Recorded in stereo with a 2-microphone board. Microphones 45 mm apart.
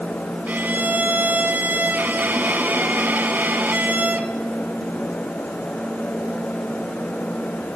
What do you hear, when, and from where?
0.5 s a violin: 45° right (ahead or behind), 1.4 m